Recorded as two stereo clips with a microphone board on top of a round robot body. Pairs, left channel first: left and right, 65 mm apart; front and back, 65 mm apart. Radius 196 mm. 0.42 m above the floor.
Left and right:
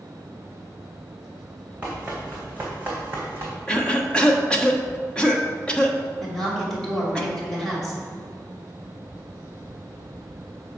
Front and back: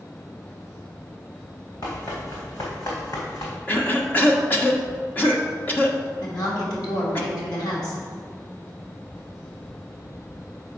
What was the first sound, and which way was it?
Running footsteps, 15° right.